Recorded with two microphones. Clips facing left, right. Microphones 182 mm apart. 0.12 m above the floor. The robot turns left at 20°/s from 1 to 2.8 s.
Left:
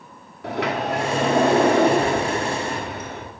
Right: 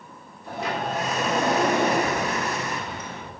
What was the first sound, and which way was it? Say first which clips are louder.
A sliding door: left 5 dB; 95° left.